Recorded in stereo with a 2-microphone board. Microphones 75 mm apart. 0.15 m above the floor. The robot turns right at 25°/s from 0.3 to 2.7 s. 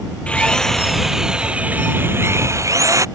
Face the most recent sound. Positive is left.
turn(degrees=-135)